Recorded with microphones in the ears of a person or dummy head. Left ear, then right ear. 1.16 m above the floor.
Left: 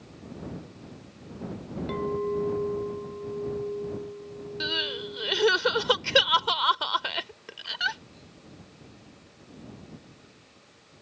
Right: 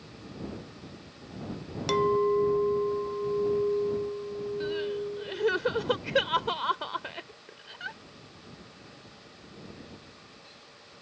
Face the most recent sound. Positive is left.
turn(degrees=55)  # may be behind; listen again after turning